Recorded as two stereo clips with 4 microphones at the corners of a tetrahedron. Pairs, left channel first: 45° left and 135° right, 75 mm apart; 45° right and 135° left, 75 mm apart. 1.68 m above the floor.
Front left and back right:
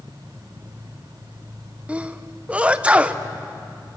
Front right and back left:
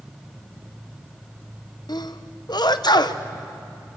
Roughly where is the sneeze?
Ahead right.